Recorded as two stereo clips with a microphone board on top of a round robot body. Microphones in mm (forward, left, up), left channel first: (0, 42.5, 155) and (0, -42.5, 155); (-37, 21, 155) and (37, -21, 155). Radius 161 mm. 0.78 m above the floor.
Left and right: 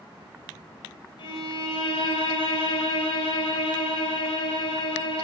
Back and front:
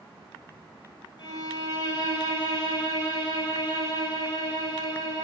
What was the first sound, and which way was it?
A violin, 105° left.